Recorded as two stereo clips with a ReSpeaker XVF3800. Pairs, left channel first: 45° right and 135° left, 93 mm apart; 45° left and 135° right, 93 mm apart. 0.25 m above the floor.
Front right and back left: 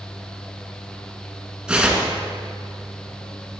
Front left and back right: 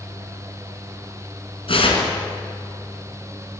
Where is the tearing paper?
55° left, 2.5 m.